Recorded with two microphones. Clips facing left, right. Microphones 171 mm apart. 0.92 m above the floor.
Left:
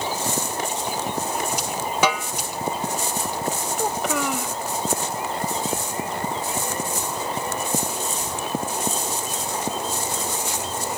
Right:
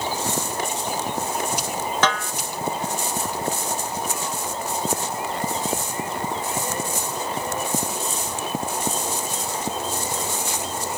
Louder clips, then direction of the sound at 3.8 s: Left 5 dB; 85° left.